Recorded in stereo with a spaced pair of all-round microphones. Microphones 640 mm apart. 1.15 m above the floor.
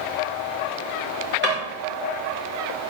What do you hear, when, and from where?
1.4 s a drawer: 15° right (ahead or behind), 1.0 m